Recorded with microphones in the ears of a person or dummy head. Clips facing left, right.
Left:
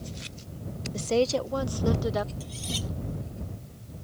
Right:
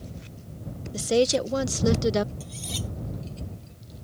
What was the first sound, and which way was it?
A woman speaking, 10° right (ahead or behind).